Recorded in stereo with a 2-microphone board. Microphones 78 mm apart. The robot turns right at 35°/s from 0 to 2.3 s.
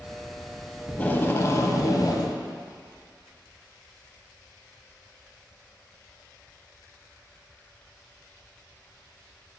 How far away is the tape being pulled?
About 1.0 m.